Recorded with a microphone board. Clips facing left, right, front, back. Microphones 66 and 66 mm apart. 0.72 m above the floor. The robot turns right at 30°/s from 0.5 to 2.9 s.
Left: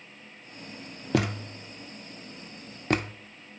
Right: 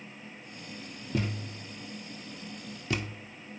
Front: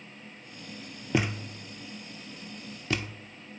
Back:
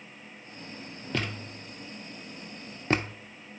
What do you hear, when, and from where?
1.1 s a thud: 75° left, 0.5 m; by 3.1 s 130° left, 0.5 m